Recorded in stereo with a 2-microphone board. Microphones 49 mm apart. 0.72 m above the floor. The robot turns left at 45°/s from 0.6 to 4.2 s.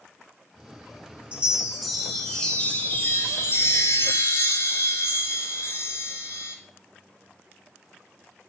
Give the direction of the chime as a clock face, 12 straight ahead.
5 o'clock.